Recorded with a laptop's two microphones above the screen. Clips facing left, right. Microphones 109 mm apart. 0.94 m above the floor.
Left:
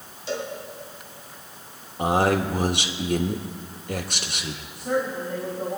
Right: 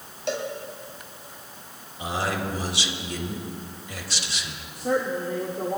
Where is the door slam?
No door slam in this recording.